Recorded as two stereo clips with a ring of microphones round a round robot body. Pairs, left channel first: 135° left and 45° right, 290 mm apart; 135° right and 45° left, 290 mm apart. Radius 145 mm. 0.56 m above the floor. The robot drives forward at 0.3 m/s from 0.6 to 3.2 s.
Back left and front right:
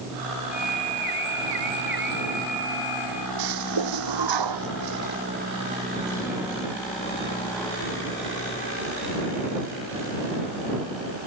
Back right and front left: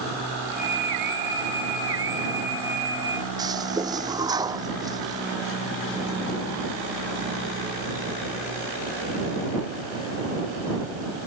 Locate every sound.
3.4 s a toilet flushing: 35° right